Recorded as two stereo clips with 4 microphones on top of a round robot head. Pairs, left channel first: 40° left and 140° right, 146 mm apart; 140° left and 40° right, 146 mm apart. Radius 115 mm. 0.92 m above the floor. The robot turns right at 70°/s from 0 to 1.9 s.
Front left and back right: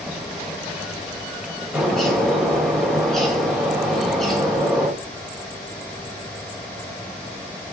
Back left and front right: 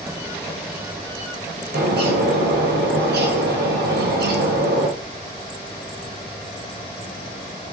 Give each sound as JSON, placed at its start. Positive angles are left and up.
{"t": 1.7, "sound": "a bird", "azimuth_deg": -55, "distance_m": 2.0}